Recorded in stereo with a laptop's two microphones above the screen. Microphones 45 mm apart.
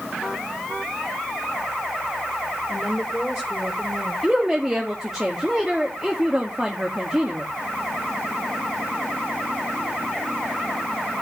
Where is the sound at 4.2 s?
5° right (ahead or behind), 1.9 m.